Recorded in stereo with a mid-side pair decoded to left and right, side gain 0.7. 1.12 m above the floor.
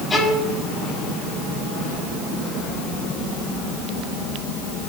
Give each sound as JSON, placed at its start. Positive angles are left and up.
{"t": 0.1, "sound": "a violin", "azimuth_deg": 20, "distance_m": 6.5}